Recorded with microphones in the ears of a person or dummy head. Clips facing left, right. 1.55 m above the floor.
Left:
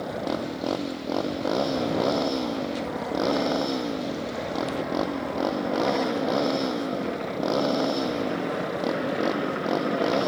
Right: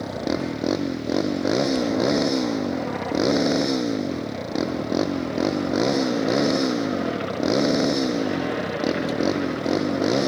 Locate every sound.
0.0 s a motorcycle: 20° right (ahead or behind)